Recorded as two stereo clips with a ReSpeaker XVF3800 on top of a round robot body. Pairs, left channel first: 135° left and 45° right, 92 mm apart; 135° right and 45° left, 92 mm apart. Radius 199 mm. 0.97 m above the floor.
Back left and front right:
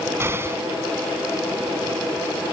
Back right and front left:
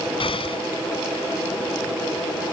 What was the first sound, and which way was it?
An explosion, 110° right.